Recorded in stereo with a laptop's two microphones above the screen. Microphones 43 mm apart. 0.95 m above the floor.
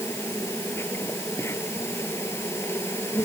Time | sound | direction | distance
0.0 | an insect | 85° left | ?